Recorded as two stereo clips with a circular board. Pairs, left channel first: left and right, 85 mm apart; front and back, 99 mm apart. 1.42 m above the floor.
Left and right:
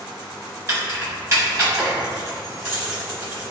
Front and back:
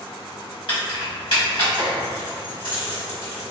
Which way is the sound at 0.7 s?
35° right.